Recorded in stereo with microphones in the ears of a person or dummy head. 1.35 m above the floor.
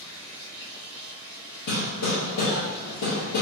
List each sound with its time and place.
0.0 s running water: 20° left (ahead or behind), 1.0 m
1.7 s hammering: 60° left (ahead or behind), 1.1 m